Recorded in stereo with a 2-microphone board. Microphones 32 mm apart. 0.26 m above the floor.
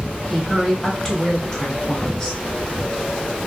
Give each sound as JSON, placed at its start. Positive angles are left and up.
{"t": 0.3, "sound": "a woman speaking", "side_deg": 10, "distance_m": 1.1}